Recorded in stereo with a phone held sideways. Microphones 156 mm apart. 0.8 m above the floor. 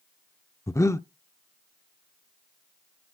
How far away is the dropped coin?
I don't hear a dropped coin.